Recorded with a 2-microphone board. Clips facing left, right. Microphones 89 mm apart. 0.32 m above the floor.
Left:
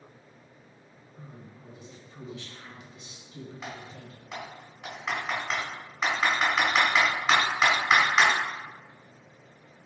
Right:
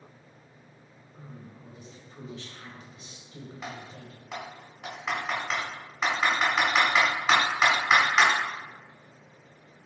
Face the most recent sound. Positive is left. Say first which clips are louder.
# right 1 dB
turn(degrees=-5)  # may be behind; listen again after turning